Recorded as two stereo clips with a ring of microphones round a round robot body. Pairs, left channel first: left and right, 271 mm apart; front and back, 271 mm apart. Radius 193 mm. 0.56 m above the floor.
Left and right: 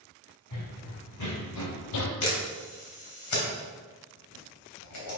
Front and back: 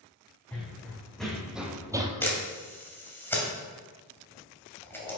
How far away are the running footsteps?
About 3.5 m.